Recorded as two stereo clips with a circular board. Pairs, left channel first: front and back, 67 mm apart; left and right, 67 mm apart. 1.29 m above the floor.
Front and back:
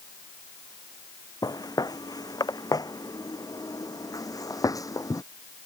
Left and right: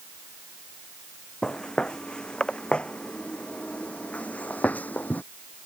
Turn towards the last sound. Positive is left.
turn(degrees=30)